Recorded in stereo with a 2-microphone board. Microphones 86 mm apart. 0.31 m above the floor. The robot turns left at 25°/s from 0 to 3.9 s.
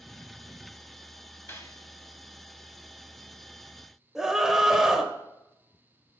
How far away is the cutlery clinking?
About 1.0 m.